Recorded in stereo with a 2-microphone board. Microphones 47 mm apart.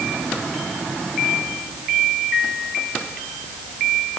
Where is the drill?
I don't hear a drill.